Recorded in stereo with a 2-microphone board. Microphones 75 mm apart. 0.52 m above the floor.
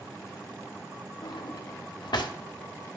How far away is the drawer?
About 0.6 m.